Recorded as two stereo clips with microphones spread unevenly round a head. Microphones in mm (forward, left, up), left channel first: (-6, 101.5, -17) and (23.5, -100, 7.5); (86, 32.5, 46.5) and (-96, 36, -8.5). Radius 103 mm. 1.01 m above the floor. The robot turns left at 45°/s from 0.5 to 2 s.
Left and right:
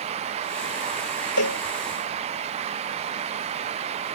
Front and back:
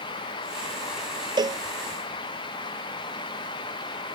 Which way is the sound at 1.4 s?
110° left.